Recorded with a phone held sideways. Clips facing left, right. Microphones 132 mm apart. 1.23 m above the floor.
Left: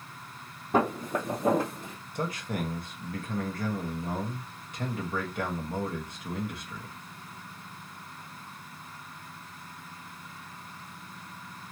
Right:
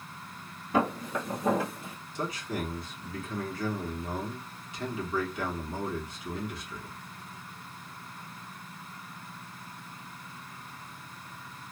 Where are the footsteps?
55° left (ahead or behind), 2 m; by 2.0 s 50° left (ahead or behind), 1.7 m.